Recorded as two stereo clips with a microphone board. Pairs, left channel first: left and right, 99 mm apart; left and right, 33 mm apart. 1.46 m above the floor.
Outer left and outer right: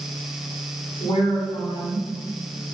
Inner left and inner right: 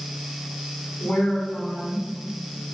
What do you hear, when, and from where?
1.0 s a woman speaking: 70° left (ahead or behind), 1.1 m